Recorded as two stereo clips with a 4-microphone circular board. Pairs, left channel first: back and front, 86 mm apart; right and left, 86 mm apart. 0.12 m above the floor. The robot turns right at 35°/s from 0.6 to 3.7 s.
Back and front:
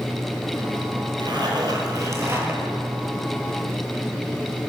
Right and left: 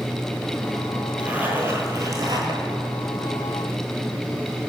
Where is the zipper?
15° left, 1.0 m; by 2.6 s 65° left, 1.0 m.